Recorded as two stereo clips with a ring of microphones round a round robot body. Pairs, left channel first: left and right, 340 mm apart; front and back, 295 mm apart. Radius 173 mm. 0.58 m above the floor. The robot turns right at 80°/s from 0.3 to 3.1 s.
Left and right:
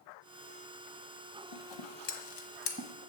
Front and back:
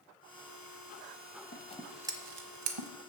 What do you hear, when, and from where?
1.5 s scissors: 55° left, 1.3 m; by 2.9 s 165° left, 1.3 m